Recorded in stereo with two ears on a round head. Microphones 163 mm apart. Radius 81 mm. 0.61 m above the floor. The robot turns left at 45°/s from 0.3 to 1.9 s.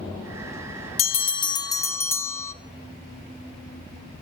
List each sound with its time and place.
1.0 s a bell: 65° left, 0.8 m; by 2.5 s 20° left, 0.8 m